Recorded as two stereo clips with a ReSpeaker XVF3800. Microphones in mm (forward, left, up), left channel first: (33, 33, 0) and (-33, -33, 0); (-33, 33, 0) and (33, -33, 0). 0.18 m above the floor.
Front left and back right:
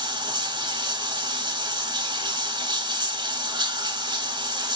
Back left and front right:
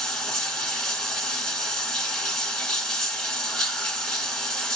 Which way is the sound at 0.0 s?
140° right.